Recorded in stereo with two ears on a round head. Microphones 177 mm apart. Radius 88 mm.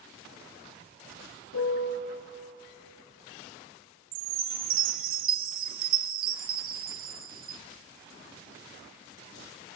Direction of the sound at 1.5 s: 75° left (ahead or behind).